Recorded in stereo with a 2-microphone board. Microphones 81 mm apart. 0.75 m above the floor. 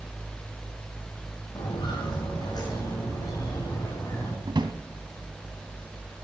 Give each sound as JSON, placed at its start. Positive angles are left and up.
{"t": 1.6, "sound": "footsteps", "side_deg": 65, "distance_m": 6.0}
{"t": 4.5, "sound": "a drawer", "side_deg": -70, "distance_m": 1.4}